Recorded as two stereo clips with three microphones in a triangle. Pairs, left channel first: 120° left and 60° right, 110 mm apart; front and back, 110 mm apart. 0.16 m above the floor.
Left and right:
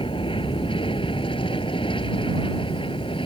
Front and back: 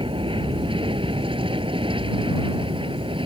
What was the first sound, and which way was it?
An aircraft, 150° left.